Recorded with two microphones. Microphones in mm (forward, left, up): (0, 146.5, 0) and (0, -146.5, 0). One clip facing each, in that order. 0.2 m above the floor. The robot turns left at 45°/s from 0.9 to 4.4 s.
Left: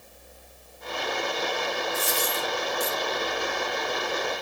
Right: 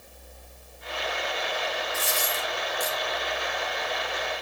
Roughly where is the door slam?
I don't hear a door slam.